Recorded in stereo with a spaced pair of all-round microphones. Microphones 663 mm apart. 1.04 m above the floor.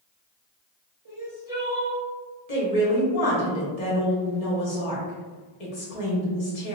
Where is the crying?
25° left (ahead or behind), 1.2 m.